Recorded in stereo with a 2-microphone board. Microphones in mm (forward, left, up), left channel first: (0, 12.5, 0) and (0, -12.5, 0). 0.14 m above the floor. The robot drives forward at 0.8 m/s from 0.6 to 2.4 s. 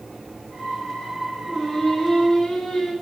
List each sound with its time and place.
1.5 s singing: 20° left (ahead or behind), 1.7 m